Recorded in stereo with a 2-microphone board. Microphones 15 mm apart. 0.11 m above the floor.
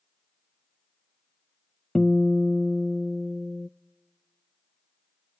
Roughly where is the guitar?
Left.